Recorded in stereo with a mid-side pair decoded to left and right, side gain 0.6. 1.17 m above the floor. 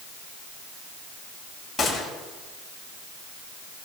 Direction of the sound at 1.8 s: 20° left.